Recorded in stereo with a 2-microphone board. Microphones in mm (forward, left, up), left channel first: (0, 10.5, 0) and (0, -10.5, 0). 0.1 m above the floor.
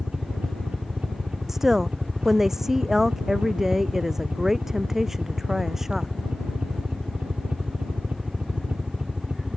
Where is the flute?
I don't hear a flute.